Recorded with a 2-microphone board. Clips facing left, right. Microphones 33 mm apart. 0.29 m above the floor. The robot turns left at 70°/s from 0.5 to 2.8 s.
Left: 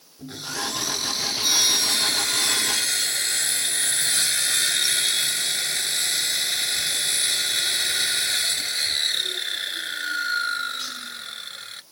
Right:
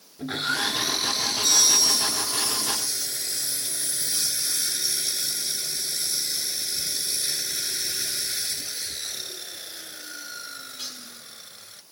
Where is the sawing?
135° right; by 11.8 s 65° left.